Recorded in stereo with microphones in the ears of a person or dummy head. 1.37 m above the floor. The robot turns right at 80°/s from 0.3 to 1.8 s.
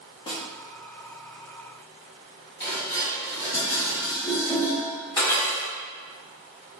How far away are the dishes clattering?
About 1.9 m.